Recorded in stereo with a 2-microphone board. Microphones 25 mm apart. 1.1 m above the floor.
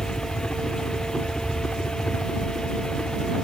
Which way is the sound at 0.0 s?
50° left (ahead or behind).